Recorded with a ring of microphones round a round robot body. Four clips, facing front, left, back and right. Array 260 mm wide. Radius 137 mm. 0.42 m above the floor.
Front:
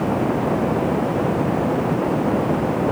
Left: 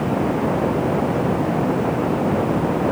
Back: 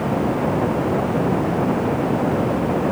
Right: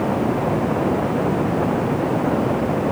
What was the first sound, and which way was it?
Only background noise.